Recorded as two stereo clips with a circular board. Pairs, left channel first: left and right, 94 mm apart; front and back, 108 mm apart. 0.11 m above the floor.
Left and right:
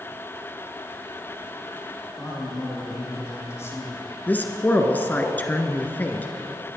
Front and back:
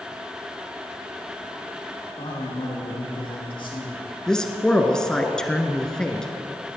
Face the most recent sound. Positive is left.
turn(degrees=70)